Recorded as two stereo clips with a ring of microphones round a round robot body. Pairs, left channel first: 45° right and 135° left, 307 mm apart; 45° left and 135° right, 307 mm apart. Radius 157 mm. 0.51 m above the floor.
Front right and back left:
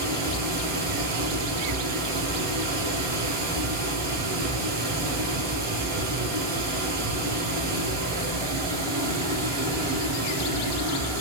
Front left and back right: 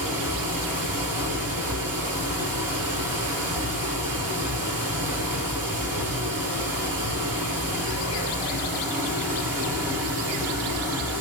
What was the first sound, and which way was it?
Running water, 170° left.